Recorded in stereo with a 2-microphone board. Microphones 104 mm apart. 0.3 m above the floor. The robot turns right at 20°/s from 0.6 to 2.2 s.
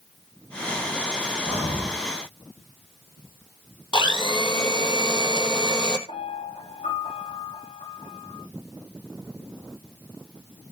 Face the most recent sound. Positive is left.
turn(degrees=80)